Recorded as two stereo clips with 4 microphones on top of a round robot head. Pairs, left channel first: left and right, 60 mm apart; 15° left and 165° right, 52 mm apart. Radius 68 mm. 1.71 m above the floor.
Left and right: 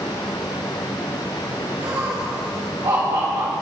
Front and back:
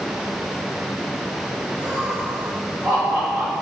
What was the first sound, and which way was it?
Laughter, 115° right.